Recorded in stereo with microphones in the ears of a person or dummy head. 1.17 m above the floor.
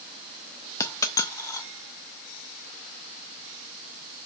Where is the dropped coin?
15° left (ahead or behind), 0.7 m.